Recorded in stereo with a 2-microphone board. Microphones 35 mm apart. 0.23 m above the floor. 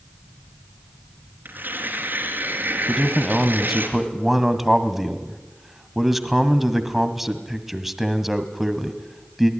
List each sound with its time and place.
1.4 s tearing paper: 65° right (ahead or behind), 3.5 m
2.9 s a man speaking: 5° right (ahead or behind), 1.7 m